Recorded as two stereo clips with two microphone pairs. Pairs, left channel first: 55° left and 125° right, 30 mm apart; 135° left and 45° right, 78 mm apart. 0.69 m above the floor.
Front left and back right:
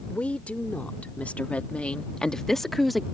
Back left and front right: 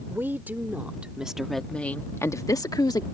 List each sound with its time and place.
0.1 s a woman speaking: 15° left; by 3.0 s 150° left